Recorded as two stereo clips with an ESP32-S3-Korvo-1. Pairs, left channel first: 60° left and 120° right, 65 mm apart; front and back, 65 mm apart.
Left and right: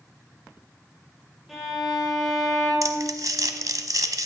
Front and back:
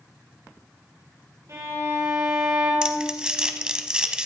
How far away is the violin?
About 4.5 m.